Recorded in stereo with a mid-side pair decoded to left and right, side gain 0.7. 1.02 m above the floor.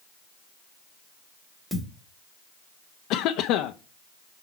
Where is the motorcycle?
I don't hear a motorcycle.